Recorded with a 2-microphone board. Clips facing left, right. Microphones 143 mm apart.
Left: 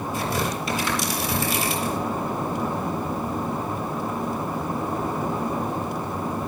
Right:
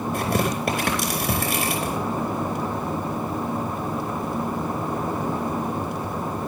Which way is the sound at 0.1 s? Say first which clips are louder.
Right 3 dB; 60° right (ahead or behind).